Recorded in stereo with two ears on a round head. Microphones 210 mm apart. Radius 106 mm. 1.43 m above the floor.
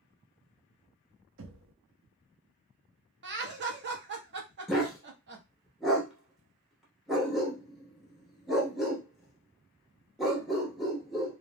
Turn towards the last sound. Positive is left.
turn(degrees=0)  # may be behind; listen again after turning